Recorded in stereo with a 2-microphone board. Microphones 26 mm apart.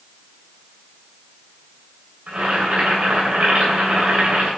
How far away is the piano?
No piano in this recording.